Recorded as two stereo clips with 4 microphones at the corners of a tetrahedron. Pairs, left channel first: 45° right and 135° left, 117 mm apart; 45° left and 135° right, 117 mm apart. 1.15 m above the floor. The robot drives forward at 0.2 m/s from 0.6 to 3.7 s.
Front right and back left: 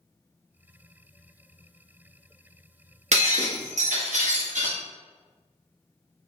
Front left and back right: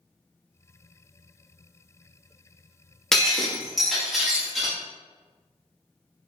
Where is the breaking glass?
130° left, 1.0 m; by 4.8 s 135° left, 1.1 m.